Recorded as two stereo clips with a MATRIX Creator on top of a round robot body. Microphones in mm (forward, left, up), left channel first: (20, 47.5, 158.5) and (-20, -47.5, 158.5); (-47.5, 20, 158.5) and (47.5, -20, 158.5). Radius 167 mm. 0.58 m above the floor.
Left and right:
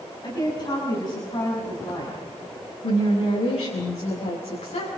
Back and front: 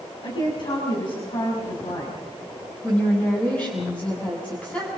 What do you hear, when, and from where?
0.2 s a woman speaking: 115° left, 7 m
2.8 s a woman speaking: 80° left, 6.5 m